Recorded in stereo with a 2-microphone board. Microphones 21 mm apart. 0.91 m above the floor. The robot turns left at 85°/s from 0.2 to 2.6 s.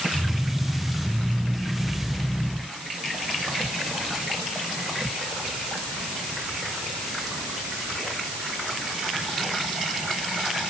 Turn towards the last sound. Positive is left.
No sound to turn to.